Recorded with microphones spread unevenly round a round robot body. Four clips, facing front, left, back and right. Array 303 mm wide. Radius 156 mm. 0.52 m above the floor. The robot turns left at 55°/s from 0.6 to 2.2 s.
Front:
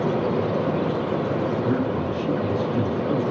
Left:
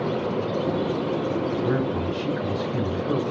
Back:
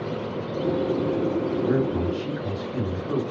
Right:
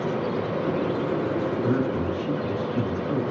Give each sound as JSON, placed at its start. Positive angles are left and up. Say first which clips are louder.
{"t": 1.6, "sound": "a man speaking", "louder": "even, even", "azimuth_deg": 140, "distance_m": 2.0}